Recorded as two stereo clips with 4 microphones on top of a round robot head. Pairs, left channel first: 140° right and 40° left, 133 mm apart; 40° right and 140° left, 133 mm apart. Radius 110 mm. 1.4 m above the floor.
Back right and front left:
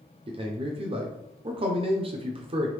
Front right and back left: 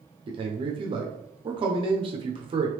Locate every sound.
0.3 s a man speaking: 90° left, 0.7 m